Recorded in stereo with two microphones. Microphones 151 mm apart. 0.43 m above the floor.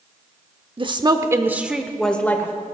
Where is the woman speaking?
35° right (ahead or behind), 1.0 m; by 2.5 s 15° left (ahead or behind), 1.3 m.